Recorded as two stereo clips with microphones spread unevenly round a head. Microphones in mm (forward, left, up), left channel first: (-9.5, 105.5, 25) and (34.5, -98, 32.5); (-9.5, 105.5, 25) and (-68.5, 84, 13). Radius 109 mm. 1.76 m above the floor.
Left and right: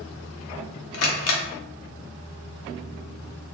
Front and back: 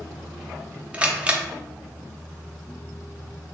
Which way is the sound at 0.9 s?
125° left.